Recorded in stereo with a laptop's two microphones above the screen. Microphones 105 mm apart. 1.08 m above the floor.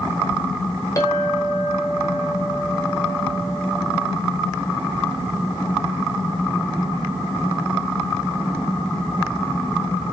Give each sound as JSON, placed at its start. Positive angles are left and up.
{"t": 1.0, "sound": "a clink", "side_deg": 30, "distance_m": 1.0}